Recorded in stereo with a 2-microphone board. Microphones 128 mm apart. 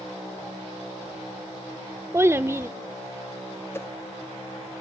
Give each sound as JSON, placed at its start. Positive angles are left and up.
{"t": 2.1, "sound": "a child speaking", "side_deg": -20, "distance_m": 0.8}
{"t": 3.7, "sound": "a whoosh", "side_deg": 20, "distance_m": 0.7}